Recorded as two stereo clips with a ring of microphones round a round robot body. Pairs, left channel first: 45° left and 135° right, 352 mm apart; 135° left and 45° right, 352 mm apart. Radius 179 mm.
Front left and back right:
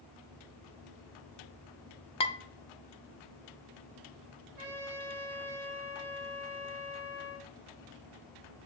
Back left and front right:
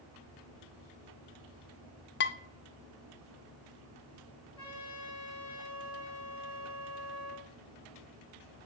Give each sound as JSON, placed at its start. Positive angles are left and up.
{"t": 2.2, "sound": "dishes clattering", "azimuth_deg": 105, "distance_m": 0.5}
{"t": 4.6, "sound": "a trumpet", "azimuth_deg": -150, "distance_m": 2.5}